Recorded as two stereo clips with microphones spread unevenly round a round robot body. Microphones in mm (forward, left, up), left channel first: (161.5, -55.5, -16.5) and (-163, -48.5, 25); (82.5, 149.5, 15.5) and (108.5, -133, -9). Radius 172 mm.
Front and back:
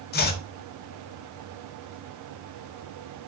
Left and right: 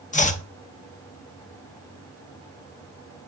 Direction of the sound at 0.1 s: 35° left.